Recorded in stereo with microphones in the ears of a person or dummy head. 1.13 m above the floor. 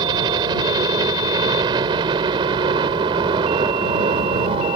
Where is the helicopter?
20° right (ahead or behind); by 4.8 s 30° right (ahead or behind).